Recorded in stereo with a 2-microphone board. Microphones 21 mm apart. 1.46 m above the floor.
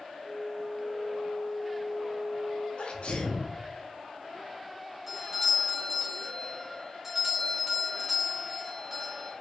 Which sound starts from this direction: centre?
A doorbell, at 5.1 s.